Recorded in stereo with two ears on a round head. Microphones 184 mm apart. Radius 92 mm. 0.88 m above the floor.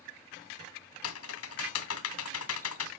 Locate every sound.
1.0 s typing on a keyboard: 75° left (ahead or behind), 1.8 m